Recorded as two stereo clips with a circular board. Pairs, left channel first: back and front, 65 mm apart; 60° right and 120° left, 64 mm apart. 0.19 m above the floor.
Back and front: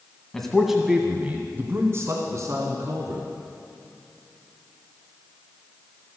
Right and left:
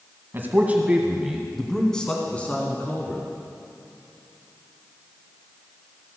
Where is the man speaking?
100° left, 1.6 m; by 3.2 s 5° right, 2.5 m.